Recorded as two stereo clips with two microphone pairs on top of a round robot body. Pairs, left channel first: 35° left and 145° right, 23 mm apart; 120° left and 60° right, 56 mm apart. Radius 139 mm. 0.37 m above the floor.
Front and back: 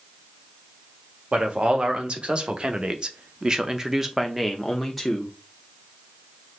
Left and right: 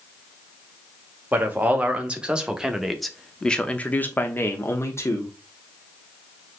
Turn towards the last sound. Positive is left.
turn(degrees=105)